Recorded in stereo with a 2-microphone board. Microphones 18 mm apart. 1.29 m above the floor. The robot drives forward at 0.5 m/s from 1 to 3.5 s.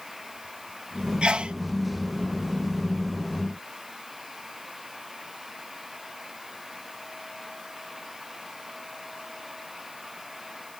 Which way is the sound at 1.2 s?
60° right (ahead or behind).